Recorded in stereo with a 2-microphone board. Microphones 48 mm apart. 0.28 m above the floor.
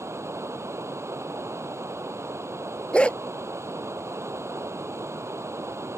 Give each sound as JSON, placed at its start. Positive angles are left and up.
{"t": 0.0, "sound": "running water", "side_deg": -75}
{"t": 2.9, "sound": "a dog barking", "side_deg": 25}